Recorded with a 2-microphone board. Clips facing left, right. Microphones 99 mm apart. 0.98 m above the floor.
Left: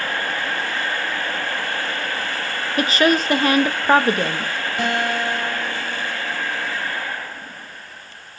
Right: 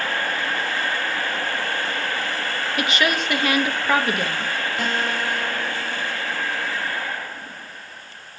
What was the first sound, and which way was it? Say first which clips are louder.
A woman speaking: left 6 dB; 35° left (ahead or behind).